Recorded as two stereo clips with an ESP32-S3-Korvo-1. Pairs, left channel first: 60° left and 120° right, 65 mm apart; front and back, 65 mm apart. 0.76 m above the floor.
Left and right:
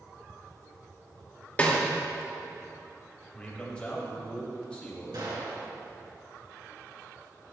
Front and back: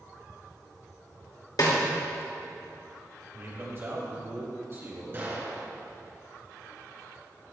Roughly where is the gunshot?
Behind right.